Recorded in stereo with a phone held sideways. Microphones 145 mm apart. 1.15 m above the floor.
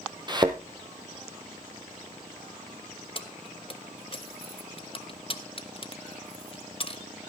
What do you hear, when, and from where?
0.3 s a thud: 30° right (ahead or behind), 1.6 m
3.1 s keys jangling: 40° left (ahead or behind), 1.0 m